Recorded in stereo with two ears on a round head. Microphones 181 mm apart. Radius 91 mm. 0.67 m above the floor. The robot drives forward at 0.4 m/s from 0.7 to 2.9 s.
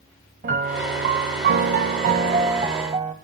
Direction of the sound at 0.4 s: 40° right (ahead or behind).